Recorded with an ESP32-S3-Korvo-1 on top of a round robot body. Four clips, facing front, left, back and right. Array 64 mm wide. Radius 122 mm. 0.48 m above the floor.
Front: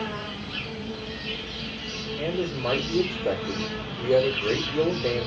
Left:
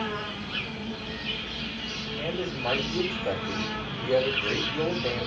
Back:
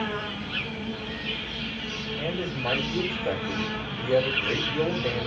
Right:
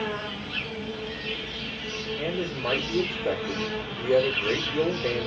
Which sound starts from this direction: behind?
An insect, at 0.0 s.